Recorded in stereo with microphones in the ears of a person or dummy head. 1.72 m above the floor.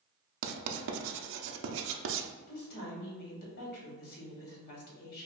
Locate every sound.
0.4 s writing: 70° right (ahead or behind), 0.6 m
2.5 s a woman speaking: 55° left (ahead or behind), 1.7 m